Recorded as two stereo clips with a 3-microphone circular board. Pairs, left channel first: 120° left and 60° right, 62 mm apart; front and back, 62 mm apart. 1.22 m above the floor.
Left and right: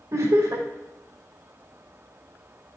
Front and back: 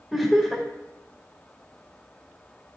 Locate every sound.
0.1 s laughter: 90° right, 1.7 m